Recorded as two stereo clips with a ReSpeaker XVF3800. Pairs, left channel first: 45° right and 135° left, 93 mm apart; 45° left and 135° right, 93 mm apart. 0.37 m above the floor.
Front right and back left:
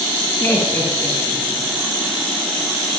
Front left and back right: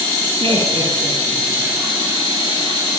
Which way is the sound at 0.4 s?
110° right.